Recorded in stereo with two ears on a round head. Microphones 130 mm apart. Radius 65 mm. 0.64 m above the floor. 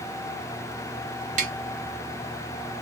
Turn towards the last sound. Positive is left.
turn(degrees=-60)  # may be behind; listen again after turning